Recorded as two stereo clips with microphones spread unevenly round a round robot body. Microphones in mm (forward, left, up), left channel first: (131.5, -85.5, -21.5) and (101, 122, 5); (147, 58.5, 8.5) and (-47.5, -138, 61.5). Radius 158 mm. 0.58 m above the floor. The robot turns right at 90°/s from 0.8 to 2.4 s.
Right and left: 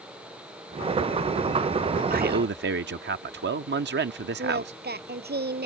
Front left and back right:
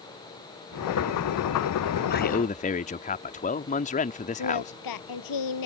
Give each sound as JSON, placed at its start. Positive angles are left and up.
{"t": 2.1, "sound": "a man speaking", "azimuth_deg": 60}
{"t": 4.4, "sound": "singing", "azimuth_deg": 60}